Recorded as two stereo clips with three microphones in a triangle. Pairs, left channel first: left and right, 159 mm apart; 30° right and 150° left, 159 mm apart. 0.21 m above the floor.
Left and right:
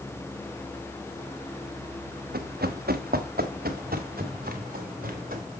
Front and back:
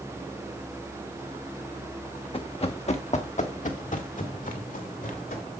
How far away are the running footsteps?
About 1.1 m.